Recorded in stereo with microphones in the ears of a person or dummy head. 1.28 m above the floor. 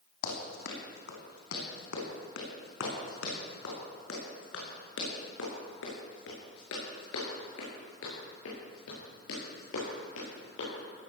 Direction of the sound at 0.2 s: 75° left (ahead or behind).